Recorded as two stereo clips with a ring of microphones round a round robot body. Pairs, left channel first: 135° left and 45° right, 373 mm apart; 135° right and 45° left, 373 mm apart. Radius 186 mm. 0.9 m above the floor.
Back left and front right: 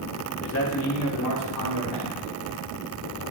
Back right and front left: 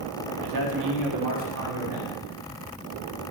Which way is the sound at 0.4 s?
75° left.